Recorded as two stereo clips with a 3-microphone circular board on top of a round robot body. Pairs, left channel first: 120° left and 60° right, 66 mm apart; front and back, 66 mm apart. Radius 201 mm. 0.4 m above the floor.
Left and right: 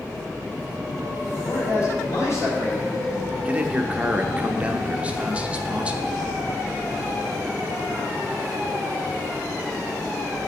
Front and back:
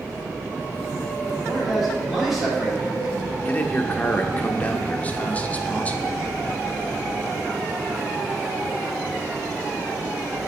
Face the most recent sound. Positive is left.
turn(degrees=-20)